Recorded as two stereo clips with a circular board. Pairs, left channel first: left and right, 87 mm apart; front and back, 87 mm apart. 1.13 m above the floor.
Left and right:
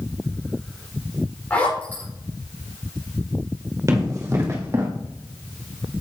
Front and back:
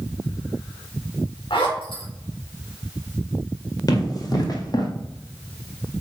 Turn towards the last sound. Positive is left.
turn(degrees=-30)